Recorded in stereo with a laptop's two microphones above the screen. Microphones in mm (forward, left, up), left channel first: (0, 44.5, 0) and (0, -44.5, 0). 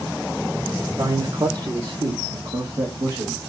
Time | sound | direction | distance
1.0 | a man speaking | 35° right (ahead or behind) | 0.9 m